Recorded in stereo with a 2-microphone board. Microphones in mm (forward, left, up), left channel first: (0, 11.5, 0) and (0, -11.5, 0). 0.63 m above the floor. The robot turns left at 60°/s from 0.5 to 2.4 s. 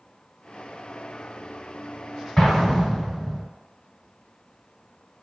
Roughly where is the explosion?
Centre.